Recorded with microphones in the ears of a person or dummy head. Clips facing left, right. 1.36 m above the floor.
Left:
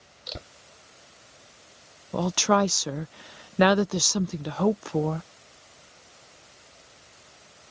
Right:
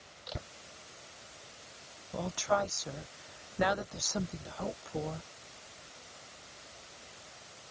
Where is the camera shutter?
35° left (ahead or behind).